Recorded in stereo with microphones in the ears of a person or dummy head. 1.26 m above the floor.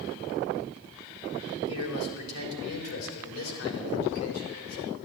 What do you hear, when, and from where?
1.7 s a man speaking: 85° left, 4 m